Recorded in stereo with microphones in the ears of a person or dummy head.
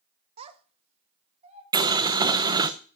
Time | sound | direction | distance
0.4 | a child speaking | 35° right (ahead or behind) | 0.7 m
1.7 | boiling | 20° right (ahead or behind) | 0.5 m